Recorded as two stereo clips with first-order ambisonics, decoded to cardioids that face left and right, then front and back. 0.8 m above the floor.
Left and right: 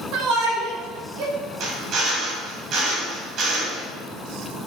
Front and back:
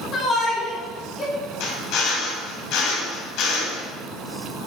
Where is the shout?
65° right, 3.5 m.